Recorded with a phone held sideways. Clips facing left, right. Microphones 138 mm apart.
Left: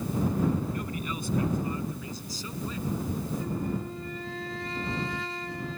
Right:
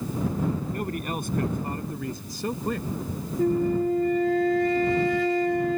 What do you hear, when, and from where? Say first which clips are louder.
0.7 s a man speaking: right 4 dB; 60° right (ahead or behind); by 2.9 s 65° right (ahead or behind)
3.4 s a flute: right 10 dB; 65° right (ahead or behind)